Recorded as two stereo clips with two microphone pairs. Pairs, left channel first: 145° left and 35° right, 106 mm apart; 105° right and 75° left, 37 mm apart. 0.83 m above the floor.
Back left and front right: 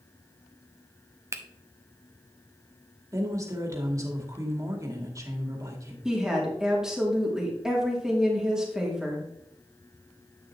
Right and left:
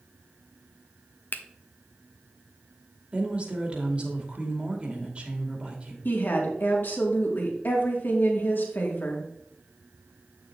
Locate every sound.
1.3 s a finger snap: 95° right, 0.8 m
3.1 s a woman speaking: 20° left, 2 m
6.0 s a woman speaking: 120° right, 2 m